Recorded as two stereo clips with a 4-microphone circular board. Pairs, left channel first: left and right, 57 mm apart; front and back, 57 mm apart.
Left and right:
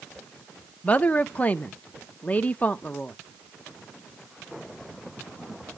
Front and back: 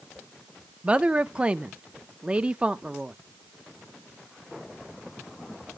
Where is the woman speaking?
125° left, 0.7 m.